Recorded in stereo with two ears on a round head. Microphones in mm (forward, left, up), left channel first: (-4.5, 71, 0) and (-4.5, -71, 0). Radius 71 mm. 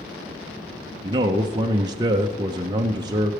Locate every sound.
1.0 s a man speaking: 25° right (ahead or behind), 0.6 m